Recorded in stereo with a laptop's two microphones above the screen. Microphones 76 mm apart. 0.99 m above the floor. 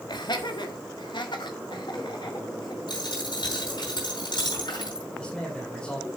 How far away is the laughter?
About 1.5 m.